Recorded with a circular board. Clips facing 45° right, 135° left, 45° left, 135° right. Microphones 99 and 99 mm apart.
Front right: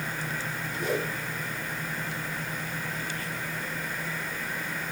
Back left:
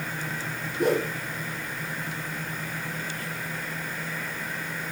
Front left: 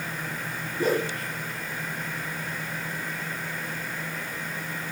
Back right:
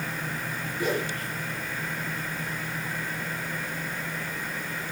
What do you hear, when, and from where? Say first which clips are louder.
0.8 s a whoosh: back left 6 dB, front left 4 dB; 100° left, 5.5 m